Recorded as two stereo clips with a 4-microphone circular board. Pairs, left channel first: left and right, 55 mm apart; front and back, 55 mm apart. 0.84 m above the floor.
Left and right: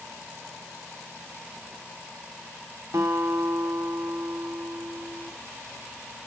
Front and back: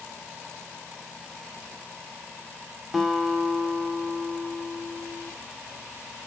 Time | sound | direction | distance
2.9 | a guitar | 90° right | 1.7 m